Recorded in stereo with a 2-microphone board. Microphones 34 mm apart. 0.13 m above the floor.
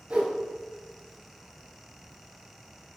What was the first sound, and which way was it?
A whoosh, 35° right (ahead or behind).